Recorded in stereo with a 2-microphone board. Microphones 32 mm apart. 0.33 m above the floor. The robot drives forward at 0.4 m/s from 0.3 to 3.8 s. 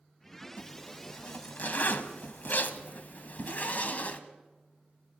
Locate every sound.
0.6 s a zipper: 50° left (ahead or behind), 1.5 m; by 4.2 s 55° left (ahead or behind), 1.5 m